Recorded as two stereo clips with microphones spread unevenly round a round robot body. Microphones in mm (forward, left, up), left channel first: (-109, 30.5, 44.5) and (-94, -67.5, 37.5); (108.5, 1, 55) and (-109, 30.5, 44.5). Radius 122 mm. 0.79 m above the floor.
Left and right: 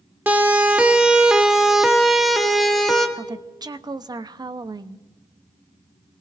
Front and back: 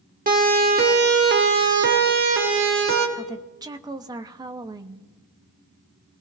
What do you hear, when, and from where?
0.3 s a siren: 145° right, 2 m; by 3.1 s 175° right, 3 m
3.2 s a woman speaking: 120° right, 0.9 m